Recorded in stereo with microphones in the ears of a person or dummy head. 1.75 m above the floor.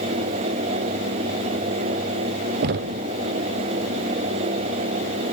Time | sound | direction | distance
2.6 | knocking | 55° right (ahead or behind) | 0.6 m